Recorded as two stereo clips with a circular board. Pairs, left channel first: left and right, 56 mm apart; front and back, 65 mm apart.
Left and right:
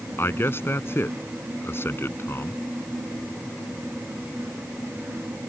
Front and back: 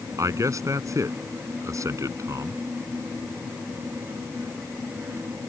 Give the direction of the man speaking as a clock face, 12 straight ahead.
7 o'clock.